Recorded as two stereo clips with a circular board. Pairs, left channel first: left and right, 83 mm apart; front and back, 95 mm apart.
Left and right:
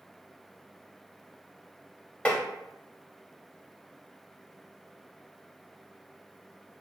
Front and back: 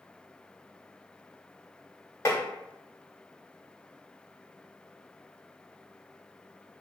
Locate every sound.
2.2 s tapping: 25° left, 0.9 m